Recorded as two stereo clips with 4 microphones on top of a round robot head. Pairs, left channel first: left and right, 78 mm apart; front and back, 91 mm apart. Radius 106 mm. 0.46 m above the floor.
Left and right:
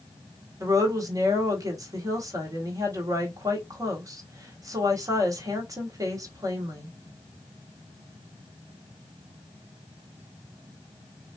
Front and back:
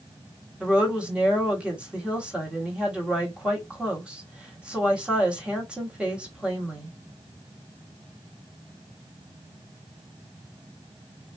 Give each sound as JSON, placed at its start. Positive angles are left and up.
{"t": 0.6, "sound": "a woman speaking", "azimuth_deg": -105, "distance_m": 1.4}